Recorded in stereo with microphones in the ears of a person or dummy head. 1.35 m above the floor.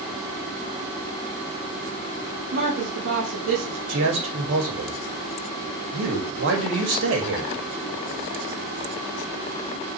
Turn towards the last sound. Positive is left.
turn(degrees=-65)  # may be behind; listen again after turning